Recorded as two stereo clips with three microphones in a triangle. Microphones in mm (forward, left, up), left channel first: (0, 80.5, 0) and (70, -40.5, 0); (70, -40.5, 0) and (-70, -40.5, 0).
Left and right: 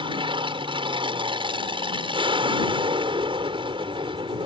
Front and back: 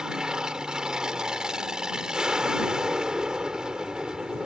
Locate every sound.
0.0 s an aircraft: 95° right